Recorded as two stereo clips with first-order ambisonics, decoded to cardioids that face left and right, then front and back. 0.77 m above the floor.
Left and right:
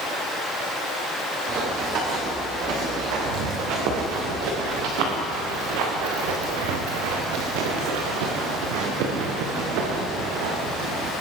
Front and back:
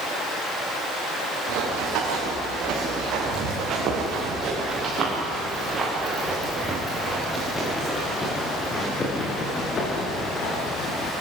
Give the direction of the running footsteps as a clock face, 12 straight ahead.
5 o'clock.